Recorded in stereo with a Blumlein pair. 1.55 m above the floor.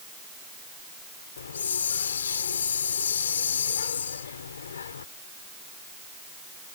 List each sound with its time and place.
1.4 s a hiss: 70° left